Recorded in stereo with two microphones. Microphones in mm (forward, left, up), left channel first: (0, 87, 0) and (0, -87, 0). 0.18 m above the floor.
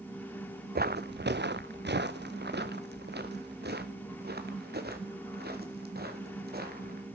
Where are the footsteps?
65° right (ahead or behind), 0.7 m.